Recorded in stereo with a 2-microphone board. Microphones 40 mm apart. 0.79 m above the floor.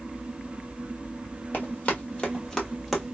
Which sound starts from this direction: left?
Running footsteps, at 1.5 s.